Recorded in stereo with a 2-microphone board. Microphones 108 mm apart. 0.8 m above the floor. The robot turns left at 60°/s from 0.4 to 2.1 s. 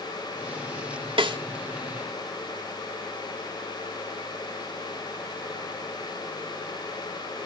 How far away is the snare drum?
About 1.1 m.